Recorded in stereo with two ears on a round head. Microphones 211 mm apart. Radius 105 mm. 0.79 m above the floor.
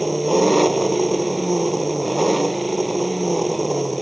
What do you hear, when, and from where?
0.0 s an engine running: centre (ahead or behind)